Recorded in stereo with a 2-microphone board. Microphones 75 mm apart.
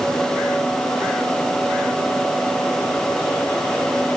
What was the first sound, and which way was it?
Only background noise.